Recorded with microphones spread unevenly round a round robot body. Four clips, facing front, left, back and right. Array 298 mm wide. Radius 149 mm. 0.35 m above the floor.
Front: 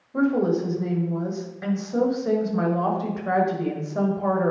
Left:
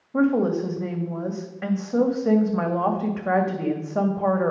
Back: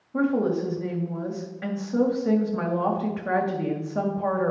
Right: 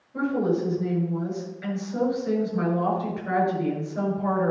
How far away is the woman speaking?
About 2 m.